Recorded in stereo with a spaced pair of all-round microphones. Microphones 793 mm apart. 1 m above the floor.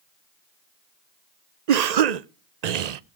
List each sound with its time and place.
1.7 s a cough: 60° right (ahead or behind), 0.6 m